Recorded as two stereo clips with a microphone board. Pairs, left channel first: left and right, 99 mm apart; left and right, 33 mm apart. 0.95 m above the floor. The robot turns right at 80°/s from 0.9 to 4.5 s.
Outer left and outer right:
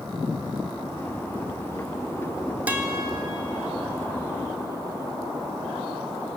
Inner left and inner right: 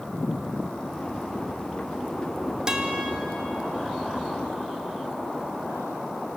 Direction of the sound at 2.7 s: 165° right.